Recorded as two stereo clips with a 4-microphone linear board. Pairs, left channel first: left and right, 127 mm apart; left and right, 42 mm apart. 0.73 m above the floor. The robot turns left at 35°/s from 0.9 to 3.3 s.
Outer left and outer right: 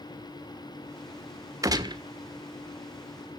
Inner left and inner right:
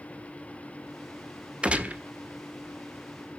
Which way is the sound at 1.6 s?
25° right (ahead or behind).